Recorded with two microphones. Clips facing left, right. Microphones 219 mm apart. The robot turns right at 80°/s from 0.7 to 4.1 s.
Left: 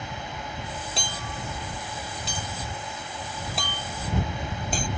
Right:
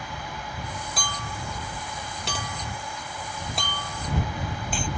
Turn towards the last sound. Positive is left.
turn(degrees=40)  # may be behind; listen again after turning